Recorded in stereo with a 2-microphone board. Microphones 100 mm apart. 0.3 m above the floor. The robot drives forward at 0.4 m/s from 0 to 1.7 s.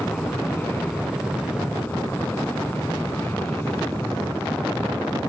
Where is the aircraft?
20° left (ahead or behind).